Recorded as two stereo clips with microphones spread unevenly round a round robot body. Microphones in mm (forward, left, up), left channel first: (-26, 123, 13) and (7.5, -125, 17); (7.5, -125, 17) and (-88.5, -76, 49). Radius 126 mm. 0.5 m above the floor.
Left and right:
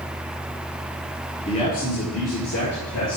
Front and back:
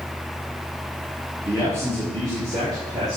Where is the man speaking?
65° left, 1.3 m; by 3.2 s 90° left, 2.5 m.